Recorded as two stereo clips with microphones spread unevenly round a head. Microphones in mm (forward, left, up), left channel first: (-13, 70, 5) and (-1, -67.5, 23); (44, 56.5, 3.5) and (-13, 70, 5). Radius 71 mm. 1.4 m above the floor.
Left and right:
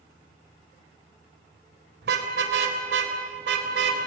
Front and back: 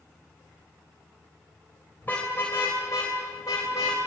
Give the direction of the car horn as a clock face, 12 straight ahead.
3 o'clock.